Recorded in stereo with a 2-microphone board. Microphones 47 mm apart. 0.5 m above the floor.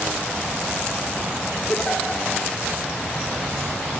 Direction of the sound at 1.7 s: 25° left (ahead or behind).